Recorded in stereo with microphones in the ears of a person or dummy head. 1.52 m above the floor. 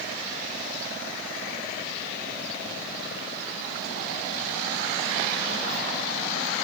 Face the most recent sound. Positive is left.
No sound to turn to.